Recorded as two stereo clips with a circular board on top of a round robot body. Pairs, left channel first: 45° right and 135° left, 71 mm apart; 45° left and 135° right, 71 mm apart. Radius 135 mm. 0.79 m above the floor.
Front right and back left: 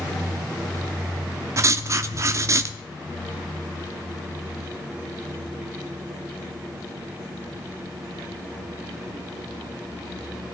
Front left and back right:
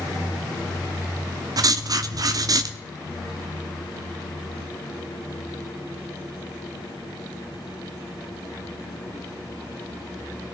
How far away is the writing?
About 0.7 m.